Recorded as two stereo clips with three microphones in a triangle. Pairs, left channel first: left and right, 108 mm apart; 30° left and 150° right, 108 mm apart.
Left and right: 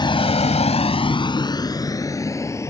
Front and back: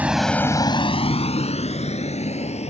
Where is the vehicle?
135° left; by 2.7 s 25° left.